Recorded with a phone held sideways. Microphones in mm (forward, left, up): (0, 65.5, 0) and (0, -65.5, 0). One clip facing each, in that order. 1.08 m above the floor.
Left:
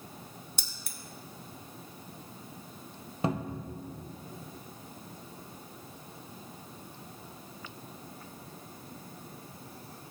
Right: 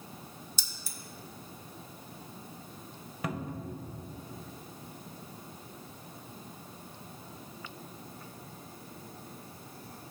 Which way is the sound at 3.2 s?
30° left (ahead or behind).